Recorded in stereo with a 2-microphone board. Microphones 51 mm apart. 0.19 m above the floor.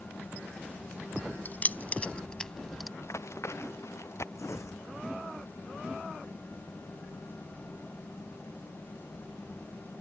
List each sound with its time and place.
1.4 s keys jangling: 40° left (ahead or behind); by 2.9 s centre (ahead or behind)
3.0 s running footsteps: 70° left (ahead or behind); by 4.2 s 65° left (ahead or behind)
4.3 s tearing paper: 65° left (ahead or behind)